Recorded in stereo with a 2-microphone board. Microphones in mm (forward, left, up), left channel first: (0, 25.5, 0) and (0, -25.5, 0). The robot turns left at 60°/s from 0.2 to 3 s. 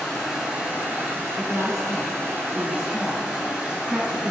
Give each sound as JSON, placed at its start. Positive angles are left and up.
{"t": 0.0, "sound": "running water", "azimuth_deg": 0, "distance_m": 1.5}
{"t": 1.4, "sound": "a woman speaking", "side_deg": 10, "distance_m": 1.1}